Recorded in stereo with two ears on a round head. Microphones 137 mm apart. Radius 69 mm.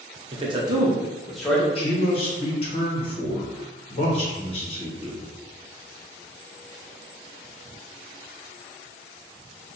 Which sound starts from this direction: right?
A man speaking, at 0.3 s.